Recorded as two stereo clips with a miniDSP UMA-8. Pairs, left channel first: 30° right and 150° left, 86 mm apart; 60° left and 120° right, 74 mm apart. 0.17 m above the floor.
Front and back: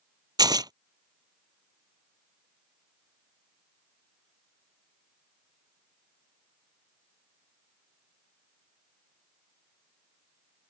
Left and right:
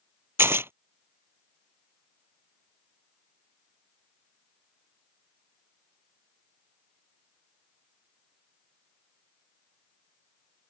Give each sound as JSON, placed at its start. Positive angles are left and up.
{"t": 0.4, "sound": "tearing paper", "azimuth_deg": -175}